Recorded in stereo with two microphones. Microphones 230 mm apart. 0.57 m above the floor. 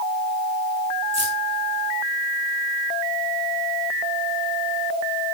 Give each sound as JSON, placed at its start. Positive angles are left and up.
{"t": 1.1, "sound": "keys jangling", "side_deg": -30, "distance_m": 9.0}